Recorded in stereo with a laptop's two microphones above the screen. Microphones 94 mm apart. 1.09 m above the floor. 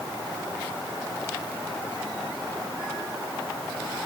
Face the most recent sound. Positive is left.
No sound to turn to.